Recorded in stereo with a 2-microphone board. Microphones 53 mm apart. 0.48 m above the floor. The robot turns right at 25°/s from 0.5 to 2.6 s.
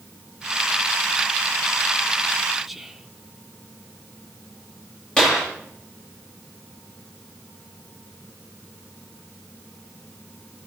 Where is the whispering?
5° right (ahead or behind), 0.7 m.